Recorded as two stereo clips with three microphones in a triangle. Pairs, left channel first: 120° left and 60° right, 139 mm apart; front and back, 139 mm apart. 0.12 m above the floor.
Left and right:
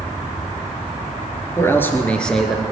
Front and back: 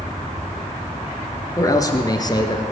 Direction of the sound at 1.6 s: 55° left.